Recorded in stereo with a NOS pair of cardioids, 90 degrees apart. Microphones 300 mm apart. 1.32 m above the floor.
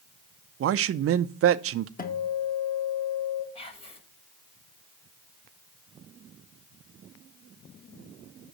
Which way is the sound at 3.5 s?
20° left.